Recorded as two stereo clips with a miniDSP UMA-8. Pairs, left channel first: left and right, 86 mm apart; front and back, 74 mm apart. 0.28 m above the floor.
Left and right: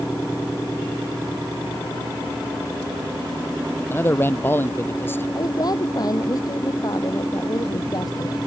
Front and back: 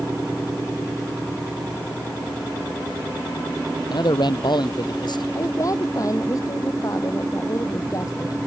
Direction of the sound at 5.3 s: 45° left.